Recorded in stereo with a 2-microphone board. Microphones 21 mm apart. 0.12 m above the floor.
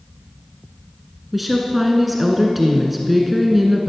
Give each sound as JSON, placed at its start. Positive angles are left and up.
{"t": 1.3, "sound": "a woman speaking", "side_deg": -5, "distance_m": 1.3}